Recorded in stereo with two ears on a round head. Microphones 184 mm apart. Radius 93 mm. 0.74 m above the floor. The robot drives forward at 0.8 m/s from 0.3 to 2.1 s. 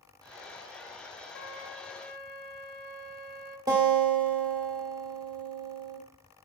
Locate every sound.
1.3 s a flute: 60° left (ahead or behind), 1.7 m; by 3.6 s 80° left, 1.5 m
3.7 s a guitar: 20° right (ahead or behind), 2.5 m